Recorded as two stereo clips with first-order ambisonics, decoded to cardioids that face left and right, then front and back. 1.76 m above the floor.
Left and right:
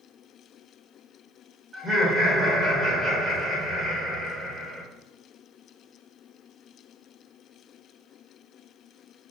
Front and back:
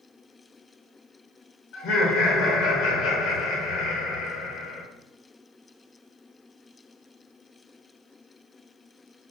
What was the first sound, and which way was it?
Laughter, 15° right.